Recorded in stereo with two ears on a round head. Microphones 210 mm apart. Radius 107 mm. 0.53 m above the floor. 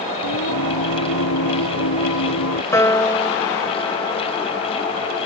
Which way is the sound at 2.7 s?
15° left (ahead or behind).